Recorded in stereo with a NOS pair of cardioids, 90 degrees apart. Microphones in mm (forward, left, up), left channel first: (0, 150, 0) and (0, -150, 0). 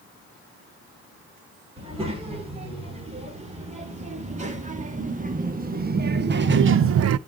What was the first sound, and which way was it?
A child speaking, 20° right.